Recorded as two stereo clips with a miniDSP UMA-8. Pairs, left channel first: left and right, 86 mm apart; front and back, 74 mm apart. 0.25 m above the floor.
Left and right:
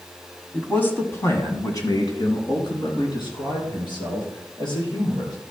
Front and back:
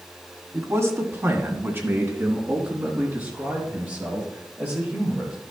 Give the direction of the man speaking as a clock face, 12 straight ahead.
7 o'clock.